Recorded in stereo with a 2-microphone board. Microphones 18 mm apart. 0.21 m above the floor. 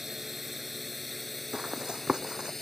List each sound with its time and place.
0.0 s a drone: 10° right (ahead or behind); by 2.6 s 20° left (ahead or behind)
1.5 s running footsteps: 50° right (ahead or behind)